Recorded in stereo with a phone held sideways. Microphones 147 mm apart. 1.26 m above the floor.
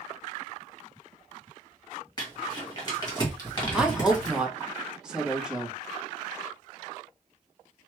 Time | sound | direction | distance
2.2 | crumpling | 30° left (ahead or behind) | 1.5 m
3.7 | a woman speaking | 5° right (ahead or behind) | 0.9 m